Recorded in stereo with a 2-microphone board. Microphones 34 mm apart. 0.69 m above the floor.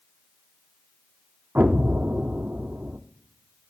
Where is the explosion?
70° right (ahead or behind), 0.7 m.